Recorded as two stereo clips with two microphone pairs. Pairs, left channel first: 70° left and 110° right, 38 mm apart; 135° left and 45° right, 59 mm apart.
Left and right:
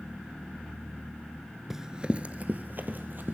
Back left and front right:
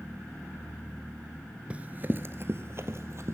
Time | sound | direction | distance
1.7 | running footsteps | 35° right | 1.0 m